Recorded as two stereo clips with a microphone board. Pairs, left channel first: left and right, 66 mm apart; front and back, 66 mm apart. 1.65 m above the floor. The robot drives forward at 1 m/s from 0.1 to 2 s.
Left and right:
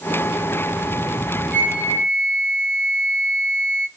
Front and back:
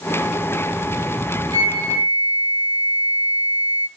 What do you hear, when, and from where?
1.5 s a flute: 160° right, 3.5 m; by 3.9 s 165° right, 4 m